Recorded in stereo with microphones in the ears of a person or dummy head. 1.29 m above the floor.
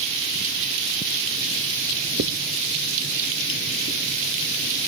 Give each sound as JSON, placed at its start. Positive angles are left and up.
{"t": 2.2, "sound": "writing", "side_deg": -55}